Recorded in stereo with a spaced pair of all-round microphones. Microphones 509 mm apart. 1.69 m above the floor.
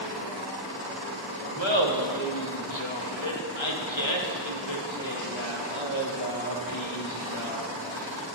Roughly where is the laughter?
Left.